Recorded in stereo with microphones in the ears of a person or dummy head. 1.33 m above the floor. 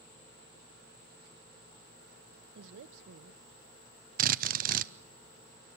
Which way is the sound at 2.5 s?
65° right (ahead or behind).